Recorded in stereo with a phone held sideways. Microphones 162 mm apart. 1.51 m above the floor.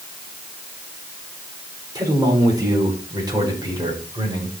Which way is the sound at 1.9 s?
20° right (ahead or behind).